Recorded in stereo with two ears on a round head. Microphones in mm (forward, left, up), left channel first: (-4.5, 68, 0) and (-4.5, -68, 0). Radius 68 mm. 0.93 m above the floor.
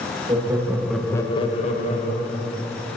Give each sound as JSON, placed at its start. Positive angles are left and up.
{"t": 0.3, "sound": "laughter", "side_deg": -25, "distance_m": 1.4}